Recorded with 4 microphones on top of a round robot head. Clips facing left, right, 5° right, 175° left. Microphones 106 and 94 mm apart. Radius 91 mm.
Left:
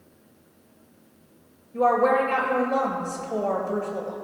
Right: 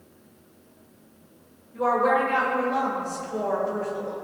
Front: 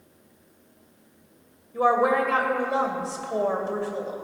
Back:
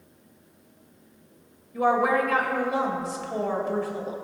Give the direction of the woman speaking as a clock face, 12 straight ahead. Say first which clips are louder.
Left 2 dB, front 1 dB; 10 o'clock.